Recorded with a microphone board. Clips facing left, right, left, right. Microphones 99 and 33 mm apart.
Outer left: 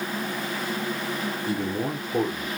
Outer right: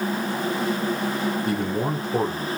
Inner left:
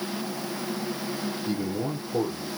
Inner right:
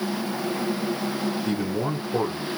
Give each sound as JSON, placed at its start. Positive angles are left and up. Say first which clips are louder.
{"t": 1.4, "sound": "a man speaking", "louder": "outer right 3 dB, inner right 3 dB", "side_deg": -65, "distance_m": 2.5}